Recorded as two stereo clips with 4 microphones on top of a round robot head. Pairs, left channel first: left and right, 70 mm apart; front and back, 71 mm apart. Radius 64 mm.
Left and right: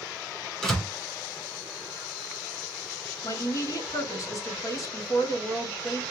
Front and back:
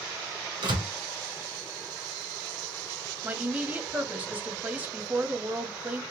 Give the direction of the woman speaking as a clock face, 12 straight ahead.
8 o'clock.